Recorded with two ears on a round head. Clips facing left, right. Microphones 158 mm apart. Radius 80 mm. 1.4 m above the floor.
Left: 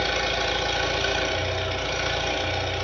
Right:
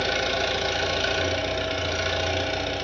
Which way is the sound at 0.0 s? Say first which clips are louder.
Right 1 dB; 30° right (ahead or behind).